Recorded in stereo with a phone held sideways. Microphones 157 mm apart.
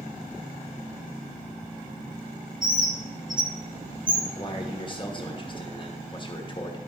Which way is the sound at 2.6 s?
65° right (ahead or behind).